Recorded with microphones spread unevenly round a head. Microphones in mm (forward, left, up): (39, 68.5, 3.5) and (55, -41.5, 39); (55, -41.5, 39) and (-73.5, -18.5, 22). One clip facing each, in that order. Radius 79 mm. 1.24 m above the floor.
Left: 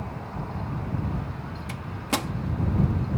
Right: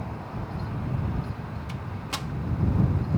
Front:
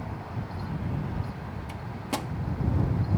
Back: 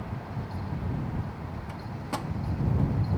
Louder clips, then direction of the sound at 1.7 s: Left 10 dB, front 2 dB; 60° left.